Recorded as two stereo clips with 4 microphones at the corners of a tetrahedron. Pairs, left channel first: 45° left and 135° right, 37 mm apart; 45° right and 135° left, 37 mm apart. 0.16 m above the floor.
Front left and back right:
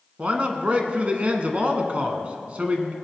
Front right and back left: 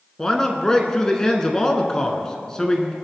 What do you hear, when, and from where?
0.2 s a man speaking: 110° right, 1.4 m